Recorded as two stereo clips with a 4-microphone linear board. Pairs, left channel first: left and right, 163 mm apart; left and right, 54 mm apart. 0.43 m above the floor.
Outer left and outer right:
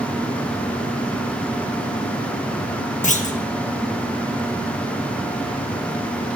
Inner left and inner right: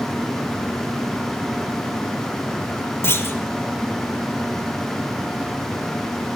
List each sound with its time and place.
3.0 s a clunk: 50° left (ahead or behind), 0.5 m